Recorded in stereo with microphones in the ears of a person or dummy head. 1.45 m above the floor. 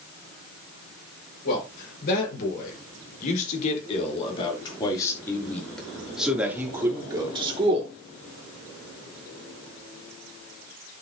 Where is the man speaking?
55° left (ahead or behind), 5 m; by 7.9 s 35° right (ahead or behind), 3.5 m.